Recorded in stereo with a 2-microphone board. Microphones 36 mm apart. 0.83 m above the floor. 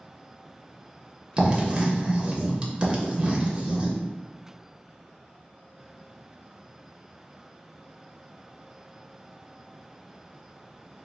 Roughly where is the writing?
Right.